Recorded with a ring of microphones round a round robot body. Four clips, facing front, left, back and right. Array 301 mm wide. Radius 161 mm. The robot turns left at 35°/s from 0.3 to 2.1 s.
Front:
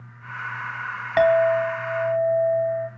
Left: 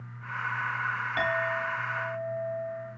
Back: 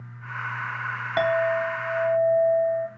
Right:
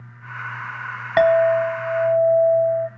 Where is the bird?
I don't hear a bird.